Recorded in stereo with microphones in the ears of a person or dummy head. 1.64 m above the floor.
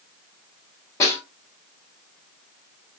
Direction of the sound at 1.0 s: 15° left (ahead or behind).